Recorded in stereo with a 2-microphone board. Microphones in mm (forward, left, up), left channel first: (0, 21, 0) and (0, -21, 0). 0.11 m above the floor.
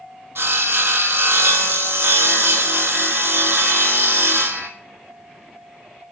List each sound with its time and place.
0.3 s sawing: 80° right, 0.7 m